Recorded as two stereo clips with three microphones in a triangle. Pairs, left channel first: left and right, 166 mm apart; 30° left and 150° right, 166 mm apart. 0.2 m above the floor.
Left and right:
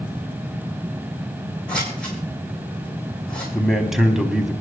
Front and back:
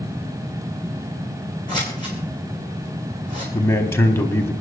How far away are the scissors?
About 5 m.